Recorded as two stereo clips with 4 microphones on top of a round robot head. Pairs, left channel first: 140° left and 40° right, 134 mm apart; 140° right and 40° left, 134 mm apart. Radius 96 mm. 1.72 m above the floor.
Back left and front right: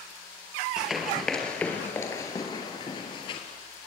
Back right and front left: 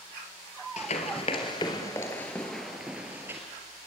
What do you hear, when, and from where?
0.8 s running footsteps: 125° right, 2.0 m; by 3.4 s 105° left, 2.0 m